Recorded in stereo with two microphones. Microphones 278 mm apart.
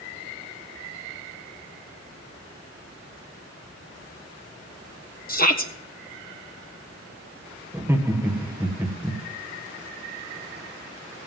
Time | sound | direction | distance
5.3 | a shout | 30° left (ahead or behind) | 1.4 m
7.7 | laughter | 10° right (ahead or behind) | 1.4 m